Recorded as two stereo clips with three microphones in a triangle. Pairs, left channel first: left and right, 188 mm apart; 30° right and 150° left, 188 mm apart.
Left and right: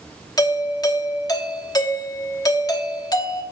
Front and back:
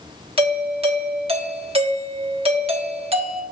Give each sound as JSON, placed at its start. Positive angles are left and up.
{"t": 0.4, "sound": "a doorbell", "azimuth_deg": 140, "distance_m": 1.1}